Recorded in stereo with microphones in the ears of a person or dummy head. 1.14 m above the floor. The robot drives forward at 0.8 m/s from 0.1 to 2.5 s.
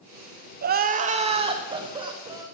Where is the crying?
50° right (ahead or behind), 0.8 m; by 2.5 s 20° right (ahead or behind), 2 m.